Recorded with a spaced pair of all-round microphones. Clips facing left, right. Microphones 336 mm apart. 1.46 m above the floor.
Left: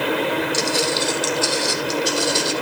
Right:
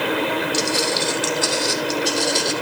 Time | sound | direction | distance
0.5 | footsteps | 5° right (ahead or behind) | 3 m